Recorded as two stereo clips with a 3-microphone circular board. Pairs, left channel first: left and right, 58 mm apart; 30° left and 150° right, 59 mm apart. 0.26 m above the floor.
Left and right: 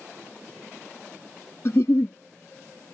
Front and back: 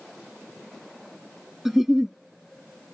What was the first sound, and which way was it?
A giggle, 125° left.